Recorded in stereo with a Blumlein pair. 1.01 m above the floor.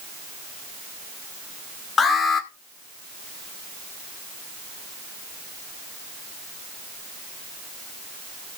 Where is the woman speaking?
No woman speaking in this recording.